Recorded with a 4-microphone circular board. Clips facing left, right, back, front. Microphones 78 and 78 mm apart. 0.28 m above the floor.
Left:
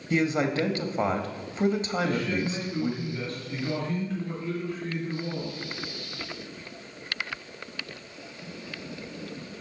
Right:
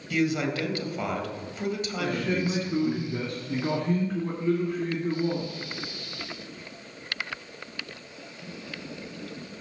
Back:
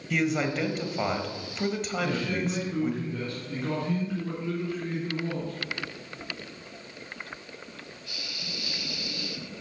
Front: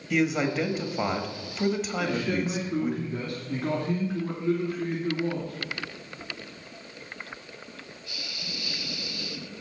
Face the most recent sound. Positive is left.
turn(degrees=-70)